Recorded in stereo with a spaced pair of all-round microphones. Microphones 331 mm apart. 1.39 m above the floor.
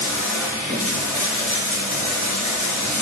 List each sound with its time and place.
0.0 s running water: 60° left (ahead or behind), 2.5 m